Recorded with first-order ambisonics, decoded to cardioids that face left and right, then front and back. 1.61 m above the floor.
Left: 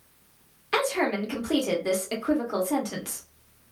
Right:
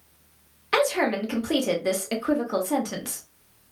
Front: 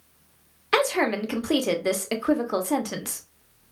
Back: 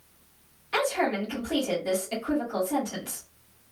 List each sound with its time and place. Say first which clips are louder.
0.7 s a woman speaking: right 3 dB, front 4 dB; 10° right, 0.7 m